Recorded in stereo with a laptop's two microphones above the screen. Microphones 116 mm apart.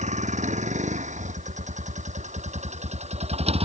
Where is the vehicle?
80° right; by 3.6 s 55° right (ahead or behind).